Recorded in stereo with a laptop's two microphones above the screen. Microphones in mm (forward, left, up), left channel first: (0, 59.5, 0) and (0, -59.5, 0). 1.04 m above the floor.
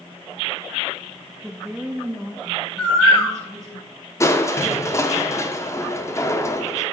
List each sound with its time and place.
1.4 s a woman speaking: 5° left (ahead or behind), 0.9 m; by 3.8 s 25° right (ahead or behind), 3.5 m
2.8 s a bird: 10° left (ahead or behind), 1.3 m
4.2 s crushing: 25° left (ahead or behind), 1.2 m